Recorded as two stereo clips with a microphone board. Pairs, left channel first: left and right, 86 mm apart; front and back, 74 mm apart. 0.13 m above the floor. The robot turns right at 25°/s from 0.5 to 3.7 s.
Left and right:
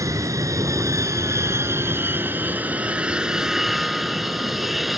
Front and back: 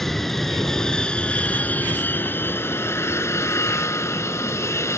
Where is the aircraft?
85° right; by 5.0 s 5° right.